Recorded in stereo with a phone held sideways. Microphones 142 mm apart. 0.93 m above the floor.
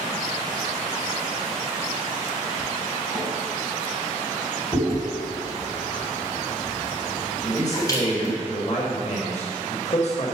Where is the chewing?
25° left (ahead or behind), 3.5 m.